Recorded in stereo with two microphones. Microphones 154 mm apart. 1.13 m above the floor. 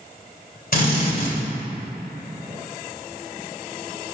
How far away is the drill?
About 3 m.